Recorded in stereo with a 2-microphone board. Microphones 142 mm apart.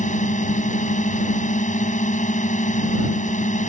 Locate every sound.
0.0 s a drone: 60° left (ahead or behind)